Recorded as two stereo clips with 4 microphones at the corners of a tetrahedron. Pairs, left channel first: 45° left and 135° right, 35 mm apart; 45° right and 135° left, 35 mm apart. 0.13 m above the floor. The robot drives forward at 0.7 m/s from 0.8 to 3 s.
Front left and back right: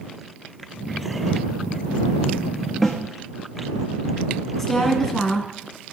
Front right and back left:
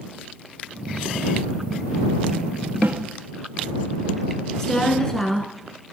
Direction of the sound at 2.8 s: 125° left.